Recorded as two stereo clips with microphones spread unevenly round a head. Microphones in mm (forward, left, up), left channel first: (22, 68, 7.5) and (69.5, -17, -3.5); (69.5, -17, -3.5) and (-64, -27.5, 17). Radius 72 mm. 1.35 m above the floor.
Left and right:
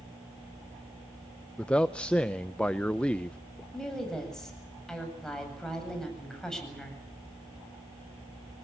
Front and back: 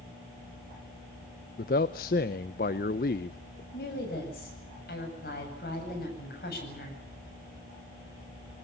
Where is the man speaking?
40° left, 0.7 m.